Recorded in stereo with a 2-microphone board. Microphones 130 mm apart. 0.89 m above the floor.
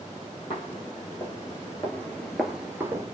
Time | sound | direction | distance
0.5 | footsteps | 45° left (ahead or behind) | 1.5 m